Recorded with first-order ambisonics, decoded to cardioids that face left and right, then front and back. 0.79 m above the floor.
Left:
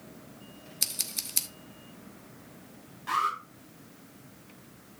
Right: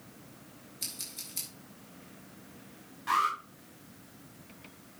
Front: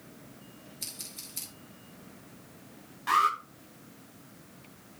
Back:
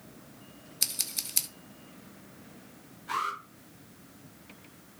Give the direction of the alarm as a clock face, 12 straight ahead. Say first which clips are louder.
Even, front 7 dB; 12 o'clock.